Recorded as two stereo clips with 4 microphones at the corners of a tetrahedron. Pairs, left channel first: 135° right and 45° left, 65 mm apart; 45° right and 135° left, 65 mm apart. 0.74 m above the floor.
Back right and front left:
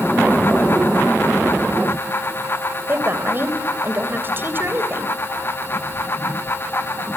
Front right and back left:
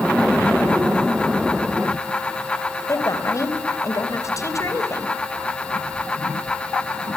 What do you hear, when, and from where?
2.9 s a woman speaking: 10° right, 3 m